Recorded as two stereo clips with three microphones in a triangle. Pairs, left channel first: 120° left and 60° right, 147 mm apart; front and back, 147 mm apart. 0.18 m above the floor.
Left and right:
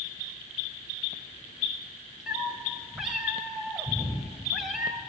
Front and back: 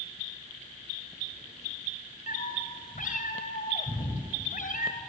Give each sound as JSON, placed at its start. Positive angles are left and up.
{"t": 2.3, "sound": "a cat meowing", "azimuth_deg": 30, "distance_m": 4.5}